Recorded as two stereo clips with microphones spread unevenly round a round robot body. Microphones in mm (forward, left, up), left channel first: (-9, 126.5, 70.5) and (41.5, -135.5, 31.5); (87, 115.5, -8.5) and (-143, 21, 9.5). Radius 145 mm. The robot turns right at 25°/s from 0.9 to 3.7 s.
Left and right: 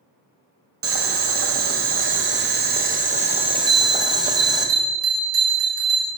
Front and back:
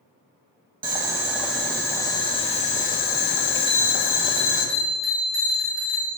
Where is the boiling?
80° right, 1.7 m; by 4.7 s 10° right, 1.7 m.